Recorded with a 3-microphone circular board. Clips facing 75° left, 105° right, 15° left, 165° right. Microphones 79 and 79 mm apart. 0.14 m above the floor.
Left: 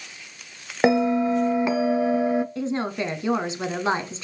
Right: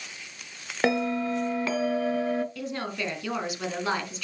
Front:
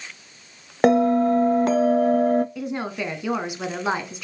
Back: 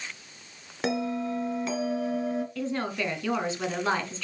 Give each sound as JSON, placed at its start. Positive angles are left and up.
{"t": 0.8, "sound": "a bell", "azimuth_deg": 5, "distance_m": 0.5}
{"t": 2.5, "sound": "a woman speaking", "azimuth_deg": 70, "distance_m": 1.1}